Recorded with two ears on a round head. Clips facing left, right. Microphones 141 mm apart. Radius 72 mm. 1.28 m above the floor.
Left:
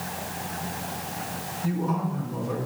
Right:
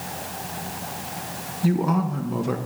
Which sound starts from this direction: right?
A man speaking, at 1.6 s.